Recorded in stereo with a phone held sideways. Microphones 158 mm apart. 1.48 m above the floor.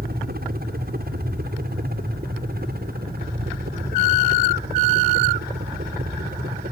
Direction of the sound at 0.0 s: 75° right (ahead or behind).